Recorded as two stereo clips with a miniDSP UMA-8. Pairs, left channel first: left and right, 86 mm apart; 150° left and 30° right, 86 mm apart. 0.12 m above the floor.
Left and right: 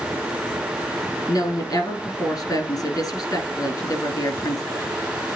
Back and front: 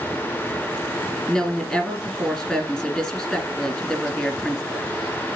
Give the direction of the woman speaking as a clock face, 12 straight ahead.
10 o'clock.